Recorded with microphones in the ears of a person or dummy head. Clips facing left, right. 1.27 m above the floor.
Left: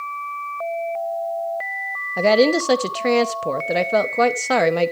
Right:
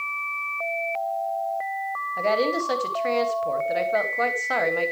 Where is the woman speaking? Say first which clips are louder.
Left 8 dB; 65° left (ahead or behind), 0.9 m.